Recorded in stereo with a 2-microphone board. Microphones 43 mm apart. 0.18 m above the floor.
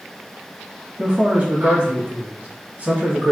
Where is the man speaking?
30° right (ahead or behind), 1.2 m.